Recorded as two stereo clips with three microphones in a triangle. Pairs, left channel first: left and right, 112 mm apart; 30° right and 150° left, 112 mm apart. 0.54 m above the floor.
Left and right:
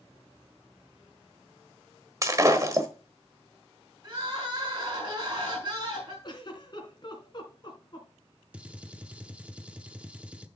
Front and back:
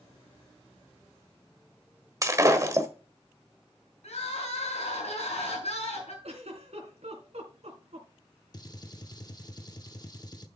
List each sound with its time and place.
2.2 s breaking glass: 150° right, 1.2 m
4.0 s crying: 40° right, 5.5 m
6.2 s a giggle: 135° left, 3 m
8.5 s a gunshot: 20° right, 0.7 m